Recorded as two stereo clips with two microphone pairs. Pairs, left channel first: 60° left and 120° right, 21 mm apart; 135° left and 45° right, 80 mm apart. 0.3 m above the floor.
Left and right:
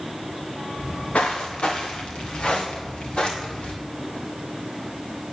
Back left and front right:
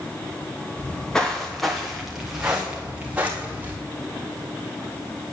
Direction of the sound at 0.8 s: 65° left.